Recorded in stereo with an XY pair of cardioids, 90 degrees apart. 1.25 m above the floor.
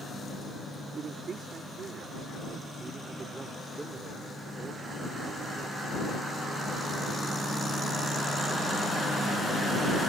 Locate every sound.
0.9 s a man speaking: 60° right; by 5.7 s 15° right